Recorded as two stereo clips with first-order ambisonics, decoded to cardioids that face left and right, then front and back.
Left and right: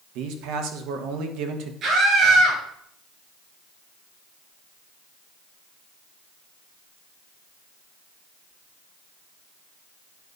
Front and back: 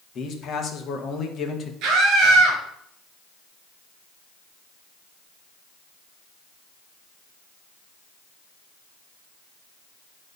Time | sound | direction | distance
0.1 | a man speaking | 60° right | 1.4 m
1.8 | a scream | 145° right | 4 m